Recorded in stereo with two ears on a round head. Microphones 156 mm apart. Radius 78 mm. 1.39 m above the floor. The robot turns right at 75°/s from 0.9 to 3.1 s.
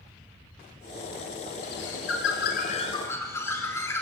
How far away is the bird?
About 4.5 m.